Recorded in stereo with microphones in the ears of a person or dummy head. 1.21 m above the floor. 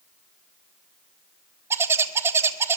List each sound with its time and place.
1.7 s a bird: 15° right (ahead or behind), 1.2 m